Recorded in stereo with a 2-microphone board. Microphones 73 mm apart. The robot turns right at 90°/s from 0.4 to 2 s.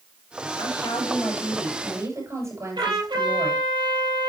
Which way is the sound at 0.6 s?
95° left.